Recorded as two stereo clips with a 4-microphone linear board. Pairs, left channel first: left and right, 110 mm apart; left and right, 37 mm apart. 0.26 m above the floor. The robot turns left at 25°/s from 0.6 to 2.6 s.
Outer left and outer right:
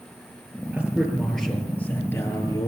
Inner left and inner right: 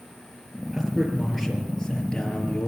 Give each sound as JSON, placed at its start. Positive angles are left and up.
{"t": 0.7, "sound": "a man speaking", "azimuth_deg": -165, "distance_m": 6.0}